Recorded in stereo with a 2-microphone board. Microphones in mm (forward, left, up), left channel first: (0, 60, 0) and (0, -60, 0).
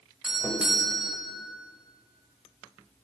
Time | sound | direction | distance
0.2 | a doorbell | 5° right (ahead or behind) | 1.9 m